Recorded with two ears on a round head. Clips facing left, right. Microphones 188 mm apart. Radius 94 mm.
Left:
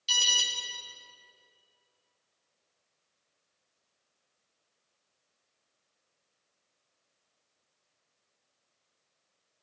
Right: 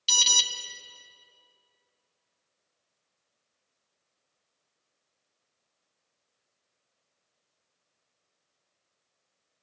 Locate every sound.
0.1 s an alarm: 65° right (ahead or behind), 1.6 m